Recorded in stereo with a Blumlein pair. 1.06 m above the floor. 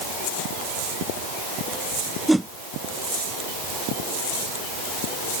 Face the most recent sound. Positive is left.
turn(degrees=-5)